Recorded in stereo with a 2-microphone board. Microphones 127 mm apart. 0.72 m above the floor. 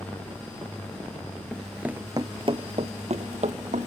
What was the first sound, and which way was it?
Running footsteps, 10° left (ahead or behind).